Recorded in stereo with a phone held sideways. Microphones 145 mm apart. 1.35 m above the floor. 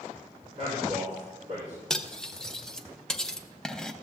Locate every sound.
0.6 s a man speaking: 45° right (ahead or behind), 4.5 m
1.9 s cutlery clinking: 5° left (ahead or behind), 0.5 m